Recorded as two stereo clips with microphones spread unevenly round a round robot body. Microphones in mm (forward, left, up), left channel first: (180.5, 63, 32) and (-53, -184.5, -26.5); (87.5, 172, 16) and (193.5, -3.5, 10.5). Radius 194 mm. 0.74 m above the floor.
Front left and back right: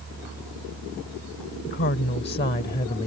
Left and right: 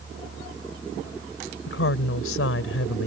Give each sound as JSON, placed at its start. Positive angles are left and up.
{"t": 1.7, "sound": "a woman speaking", "azimuth_deg": 110}